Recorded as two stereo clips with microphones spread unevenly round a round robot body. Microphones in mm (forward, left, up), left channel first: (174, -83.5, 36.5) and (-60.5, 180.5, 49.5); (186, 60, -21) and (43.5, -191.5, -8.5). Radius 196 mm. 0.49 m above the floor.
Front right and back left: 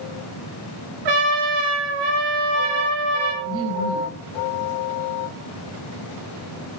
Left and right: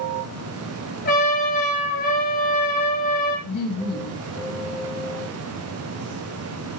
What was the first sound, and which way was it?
A trumpet, 130° left.